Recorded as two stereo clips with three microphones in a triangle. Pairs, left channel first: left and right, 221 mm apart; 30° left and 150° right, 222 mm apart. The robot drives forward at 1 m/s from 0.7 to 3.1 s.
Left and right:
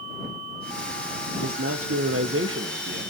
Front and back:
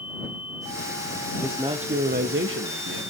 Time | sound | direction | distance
1.4 | a man speaking | 65° right | 1.2 m